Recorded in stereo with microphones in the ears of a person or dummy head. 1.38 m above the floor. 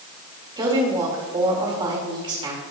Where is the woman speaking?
25° right (ahead or behind), 2 m.